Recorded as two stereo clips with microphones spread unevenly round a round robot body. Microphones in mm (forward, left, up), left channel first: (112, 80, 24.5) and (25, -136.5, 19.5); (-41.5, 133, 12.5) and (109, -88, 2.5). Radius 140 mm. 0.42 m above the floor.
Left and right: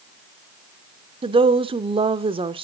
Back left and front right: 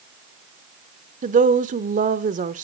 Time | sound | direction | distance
1.2 | a woman speaking | 70° right | 0.9 m